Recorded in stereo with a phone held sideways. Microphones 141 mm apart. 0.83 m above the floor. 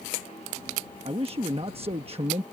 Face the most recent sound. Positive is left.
turn(degrees=-45)  # may be behind; listen again after turning